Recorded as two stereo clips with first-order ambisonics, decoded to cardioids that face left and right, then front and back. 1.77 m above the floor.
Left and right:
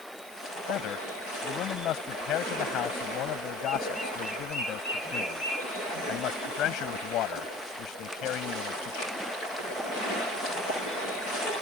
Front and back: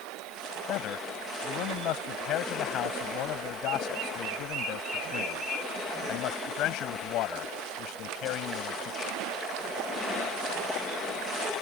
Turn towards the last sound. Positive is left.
turn(degrees=45)